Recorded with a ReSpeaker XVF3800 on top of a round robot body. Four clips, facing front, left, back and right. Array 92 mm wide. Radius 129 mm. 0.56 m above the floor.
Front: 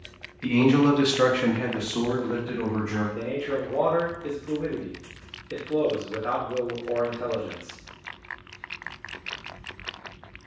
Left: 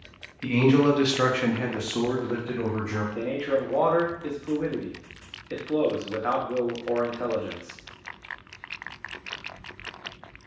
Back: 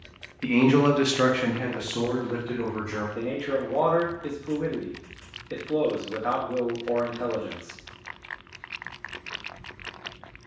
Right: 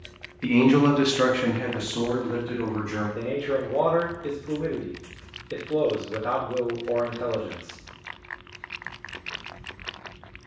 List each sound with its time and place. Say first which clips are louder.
0.4 s a man speaking: right 2 dB, even; 135° right, 0.9 m; by 3.0 s 65° left, 1.4 m
3.1 s a man speaking: left 2 dB, back 1 dB; 120° left, 1.1 m